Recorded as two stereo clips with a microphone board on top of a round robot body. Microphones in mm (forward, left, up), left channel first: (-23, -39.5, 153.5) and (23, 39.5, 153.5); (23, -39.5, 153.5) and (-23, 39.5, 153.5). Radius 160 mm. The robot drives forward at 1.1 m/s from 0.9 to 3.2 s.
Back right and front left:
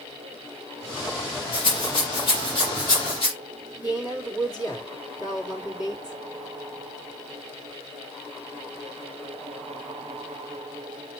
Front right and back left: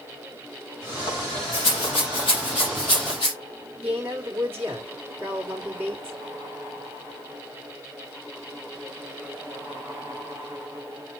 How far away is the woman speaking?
About 3 m.